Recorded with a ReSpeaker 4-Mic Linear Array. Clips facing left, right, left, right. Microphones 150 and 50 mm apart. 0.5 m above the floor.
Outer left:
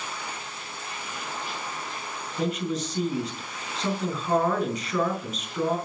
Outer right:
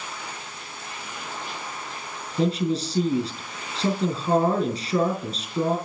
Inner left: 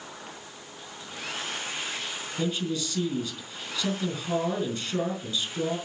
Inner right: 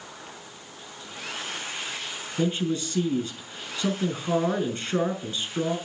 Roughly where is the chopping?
I don't hear chopping.